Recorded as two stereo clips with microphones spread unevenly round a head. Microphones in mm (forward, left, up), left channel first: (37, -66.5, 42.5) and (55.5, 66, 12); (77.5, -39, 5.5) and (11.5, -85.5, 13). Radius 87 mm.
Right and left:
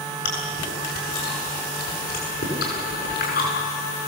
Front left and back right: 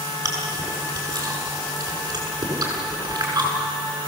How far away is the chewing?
About 8 m.